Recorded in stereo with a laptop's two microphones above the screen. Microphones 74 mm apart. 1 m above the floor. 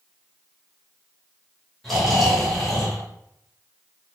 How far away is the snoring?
About 1.3 m.